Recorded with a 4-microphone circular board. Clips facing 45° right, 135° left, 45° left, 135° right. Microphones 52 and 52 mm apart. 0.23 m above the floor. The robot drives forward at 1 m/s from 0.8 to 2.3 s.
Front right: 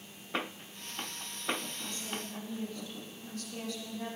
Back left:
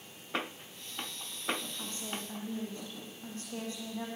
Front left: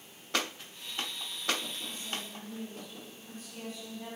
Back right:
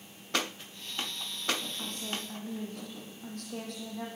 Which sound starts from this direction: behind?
A woman speaking, at 1.8 s.